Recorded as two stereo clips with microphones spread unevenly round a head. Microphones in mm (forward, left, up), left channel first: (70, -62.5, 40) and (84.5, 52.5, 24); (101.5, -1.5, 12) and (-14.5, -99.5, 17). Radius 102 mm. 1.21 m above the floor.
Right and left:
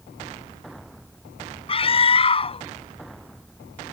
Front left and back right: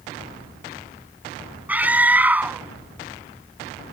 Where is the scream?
60° right.